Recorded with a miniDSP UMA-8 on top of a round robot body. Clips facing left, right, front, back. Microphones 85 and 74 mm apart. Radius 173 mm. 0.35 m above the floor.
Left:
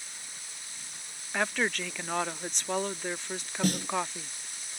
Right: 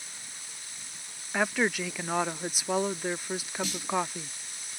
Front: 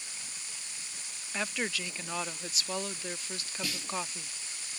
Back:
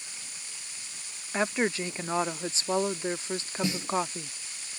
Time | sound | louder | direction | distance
1.3 | a woman speaking | right 2 dB, back 7 dB | 165° right | ?
3.6 | a snare drum | left 8 dB, back 8 dB | 115° left | ?